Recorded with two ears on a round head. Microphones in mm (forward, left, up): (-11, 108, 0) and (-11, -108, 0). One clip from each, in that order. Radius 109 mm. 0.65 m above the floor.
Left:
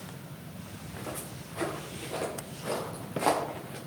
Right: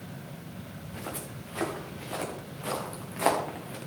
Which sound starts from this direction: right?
Footsteps, at 0.8 s.